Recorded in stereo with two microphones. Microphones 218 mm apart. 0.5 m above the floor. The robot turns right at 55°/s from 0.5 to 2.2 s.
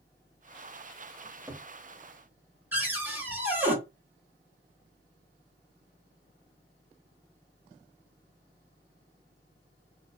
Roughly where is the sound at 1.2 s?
Right.